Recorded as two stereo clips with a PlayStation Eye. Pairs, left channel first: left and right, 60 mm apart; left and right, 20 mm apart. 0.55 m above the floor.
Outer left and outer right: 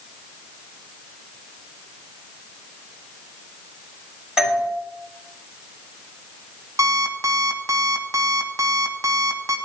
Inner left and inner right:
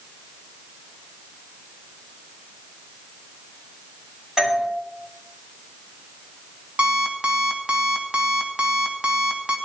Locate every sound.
4.4 s a doorbell: 10° right (ahead or behind), 2 m
6.8 s an alarm clock: 65° right (ahead or behind), 1.5 m